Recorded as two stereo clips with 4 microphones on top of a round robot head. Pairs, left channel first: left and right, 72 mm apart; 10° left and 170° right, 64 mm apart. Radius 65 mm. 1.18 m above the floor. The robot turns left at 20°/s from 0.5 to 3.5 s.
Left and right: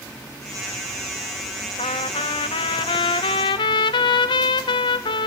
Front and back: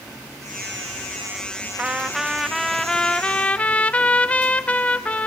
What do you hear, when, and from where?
1.8 s a trumpet: 115° left, 0.5 m; by 5.3 s 80° left, 0.5 m